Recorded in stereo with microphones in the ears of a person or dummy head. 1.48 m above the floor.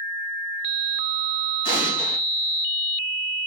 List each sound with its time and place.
1.6 s an explosion: 30° left (ahead or behind), 2.5 m